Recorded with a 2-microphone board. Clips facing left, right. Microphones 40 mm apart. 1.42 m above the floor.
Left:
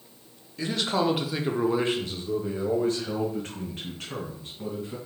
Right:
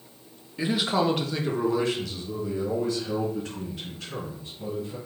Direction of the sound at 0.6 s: 20° right (ahead or behind).